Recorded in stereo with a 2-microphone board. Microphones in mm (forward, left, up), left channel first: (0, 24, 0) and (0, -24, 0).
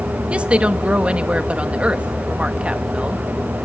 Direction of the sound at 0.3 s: 25° right (ahead or behind).